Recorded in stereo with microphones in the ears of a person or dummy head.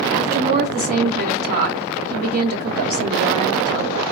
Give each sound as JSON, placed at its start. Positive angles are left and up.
{"t": 0.1, "sound": "a woman speaking", "side_deg": -50, "distance_m": 1.0}